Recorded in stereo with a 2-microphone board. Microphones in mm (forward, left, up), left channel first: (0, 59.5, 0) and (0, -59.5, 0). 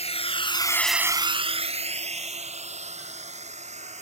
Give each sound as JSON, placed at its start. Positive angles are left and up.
{"t": 0.0, "sound": "a drone", "side_deg": 65}